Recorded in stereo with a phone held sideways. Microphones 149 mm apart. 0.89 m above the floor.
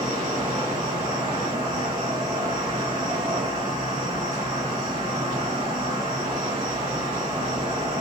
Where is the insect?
25° right (ahead or behind), 1.5 m.